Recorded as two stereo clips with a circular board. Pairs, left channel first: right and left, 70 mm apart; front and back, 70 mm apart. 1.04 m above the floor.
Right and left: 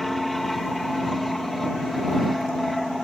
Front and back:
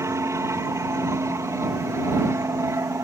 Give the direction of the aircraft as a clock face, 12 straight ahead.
6 o'clock.